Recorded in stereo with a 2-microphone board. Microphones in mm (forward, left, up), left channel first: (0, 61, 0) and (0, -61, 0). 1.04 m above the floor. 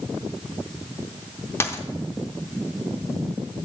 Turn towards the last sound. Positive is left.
turn(degrees=20)  # may be behind; listen again after turning